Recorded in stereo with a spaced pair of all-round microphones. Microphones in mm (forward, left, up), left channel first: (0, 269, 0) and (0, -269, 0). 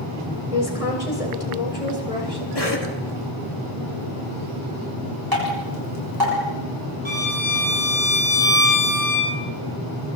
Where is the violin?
55° right (ahead or behind), 4.5 m.